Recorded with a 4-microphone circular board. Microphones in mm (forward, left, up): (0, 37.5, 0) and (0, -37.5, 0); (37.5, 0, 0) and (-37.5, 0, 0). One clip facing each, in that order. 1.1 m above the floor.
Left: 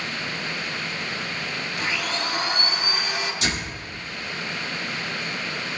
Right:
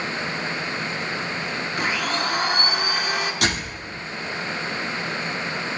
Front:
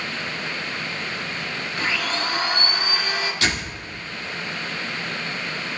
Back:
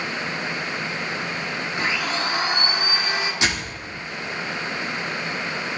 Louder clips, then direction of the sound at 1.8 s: Right 3 dB, even; 115° right.